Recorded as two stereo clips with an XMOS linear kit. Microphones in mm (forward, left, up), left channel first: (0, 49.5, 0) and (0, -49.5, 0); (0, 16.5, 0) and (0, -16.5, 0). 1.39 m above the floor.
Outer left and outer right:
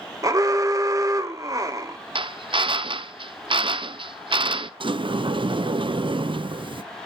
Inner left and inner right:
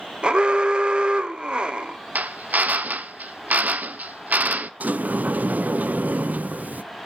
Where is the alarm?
35° right (ahead or behind), 1.0 m.